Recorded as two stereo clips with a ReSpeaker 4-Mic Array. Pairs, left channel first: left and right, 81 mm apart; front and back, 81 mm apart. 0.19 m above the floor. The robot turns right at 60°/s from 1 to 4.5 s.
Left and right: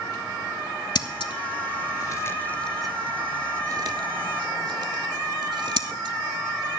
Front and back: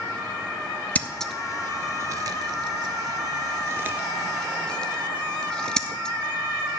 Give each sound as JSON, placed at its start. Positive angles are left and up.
{"t": 0.9, "sound": "scissors", "azimuth_deg": 70, "distance_m": 0.7}